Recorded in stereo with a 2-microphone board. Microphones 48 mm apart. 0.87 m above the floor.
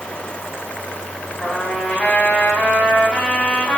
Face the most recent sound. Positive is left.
turn(degrees=25)  # may be behind; listen again after turning